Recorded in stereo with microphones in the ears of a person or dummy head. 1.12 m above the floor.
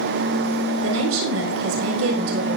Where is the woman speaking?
80° right, 4 m.